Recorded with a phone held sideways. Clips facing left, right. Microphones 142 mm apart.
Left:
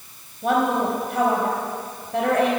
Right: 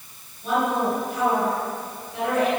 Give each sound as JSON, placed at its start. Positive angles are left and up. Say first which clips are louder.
{"t": 0.4, "sound": "a woman speaking", "louder": "left 2 dB", "side_deg": 70, "distance_m": 4.0}